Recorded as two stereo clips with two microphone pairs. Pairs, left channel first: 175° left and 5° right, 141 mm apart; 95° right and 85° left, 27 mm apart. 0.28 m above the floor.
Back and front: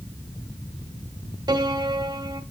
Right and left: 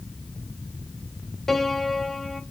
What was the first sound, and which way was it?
A piano, 10° right.